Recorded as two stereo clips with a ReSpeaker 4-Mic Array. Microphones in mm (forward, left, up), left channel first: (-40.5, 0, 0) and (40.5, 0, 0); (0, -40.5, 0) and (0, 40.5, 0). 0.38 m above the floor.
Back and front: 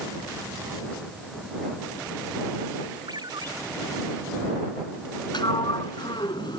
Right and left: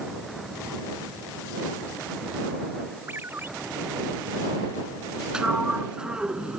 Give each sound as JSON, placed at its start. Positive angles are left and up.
{"t": 3.1, "sound": "a ringtone", "azimuth_deg": 30}
{"t": 5.3, "sound": "a sliding door", "azimuth_deg": 170}